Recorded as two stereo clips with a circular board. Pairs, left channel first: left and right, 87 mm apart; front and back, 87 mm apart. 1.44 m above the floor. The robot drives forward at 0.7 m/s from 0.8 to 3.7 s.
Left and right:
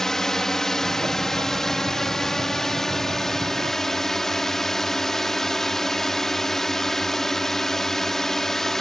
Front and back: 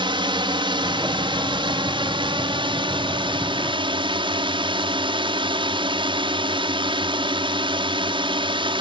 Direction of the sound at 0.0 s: 175° left.